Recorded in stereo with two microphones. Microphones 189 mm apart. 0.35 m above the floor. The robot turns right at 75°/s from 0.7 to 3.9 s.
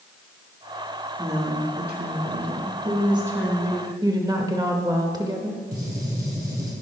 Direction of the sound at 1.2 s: 170° right.